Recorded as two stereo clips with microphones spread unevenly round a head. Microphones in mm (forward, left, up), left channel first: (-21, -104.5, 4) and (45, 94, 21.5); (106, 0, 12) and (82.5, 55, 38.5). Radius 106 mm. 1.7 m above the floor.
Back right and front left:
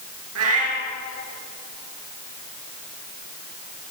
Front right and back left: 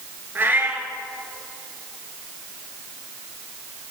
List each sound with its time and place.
0.3 s a cat meowing: 60° left, 6.5 m